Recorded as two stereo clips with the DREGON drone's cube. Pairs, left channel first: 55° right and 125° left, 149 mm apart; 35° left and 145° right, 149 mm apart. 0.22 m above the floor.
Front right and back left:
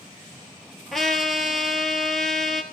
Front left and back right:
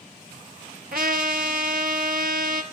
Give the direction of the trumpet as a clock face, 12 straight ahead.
5 o'clock.